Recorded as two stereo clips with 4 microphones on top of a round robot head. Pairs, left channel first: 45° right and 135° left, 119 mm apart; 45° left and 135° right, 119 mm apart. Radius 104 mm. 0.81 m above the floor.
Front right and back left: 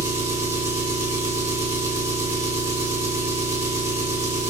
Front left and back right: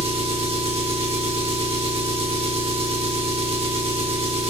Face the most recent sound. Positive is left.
turn(degrees=-160)